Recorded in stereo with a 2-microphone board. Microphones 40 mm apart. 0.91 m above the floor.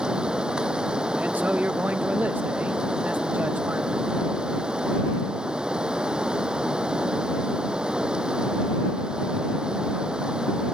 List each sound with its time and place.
0.0 s running water: 20° right (ahead or behind)
1.2 s a man speaking: 45° right (ahead or behind)